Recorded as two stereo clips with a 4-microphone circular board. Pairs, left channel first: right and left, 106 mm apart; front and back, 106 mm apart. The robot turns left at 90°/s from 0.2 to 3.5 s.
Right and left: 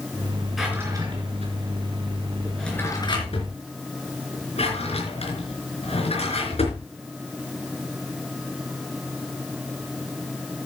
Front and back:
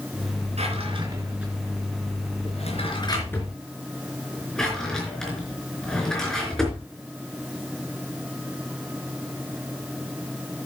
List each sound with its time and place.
0.6 s a drawer: straight behind, 4 m; by 6.8 s 85° right, 4 m